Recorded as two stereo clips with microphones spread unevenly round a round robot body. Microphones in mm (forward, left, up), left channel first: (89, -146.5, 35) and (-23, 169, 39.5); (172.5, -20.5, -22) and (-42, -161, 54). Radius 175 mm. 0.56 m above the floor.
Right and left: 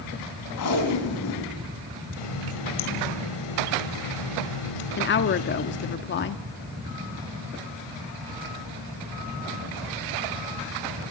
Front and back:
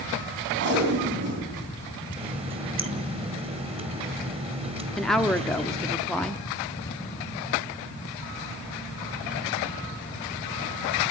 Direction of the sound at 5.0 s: 35° right.